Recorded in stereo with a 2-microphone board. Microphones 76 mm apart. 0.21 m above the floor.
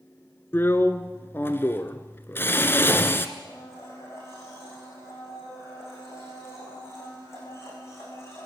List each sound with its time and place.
0.5 s a drill: 30° left (ahead or behind), 1.3 m
3.4 s a blender: 35° left (ahead or behind), 8.5 m